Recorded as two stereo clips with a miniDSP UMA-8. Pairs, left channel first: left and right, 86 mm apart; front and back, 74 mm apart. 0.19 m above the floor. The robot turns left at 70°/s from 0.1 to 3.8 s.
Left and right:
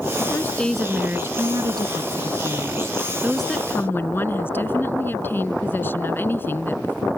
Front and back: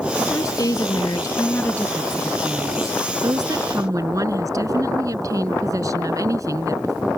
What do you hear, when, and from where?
0.2 s a woman speaking: 45° left; by 7.1 s 150° left